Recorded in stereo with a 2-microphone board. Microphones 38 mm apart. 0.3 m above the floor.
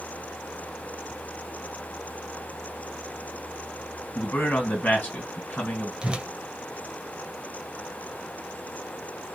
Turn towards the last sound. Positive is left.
turn(degrees=-25)  # may be behind; listen again after turning